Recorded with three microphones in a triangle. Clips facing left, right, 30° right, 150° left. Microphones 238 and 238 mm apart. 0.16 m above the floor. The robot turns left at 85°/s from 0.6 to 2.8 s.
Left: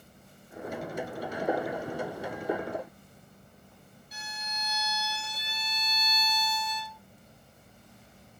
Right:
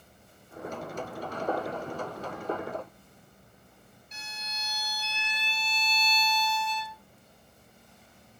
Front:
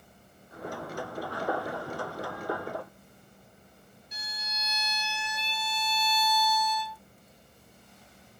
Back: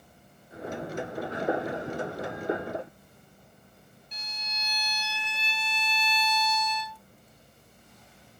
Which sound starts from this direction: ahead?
A violin, at 4.1 s.